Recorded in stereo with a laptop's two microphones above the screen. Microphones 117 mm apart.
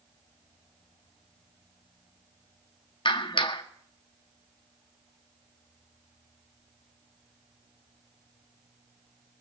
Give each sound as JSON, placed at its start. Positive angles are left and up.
{"t": 3.0, "sound": "a clap", "side_deg": 45, "distance_m": 1.5}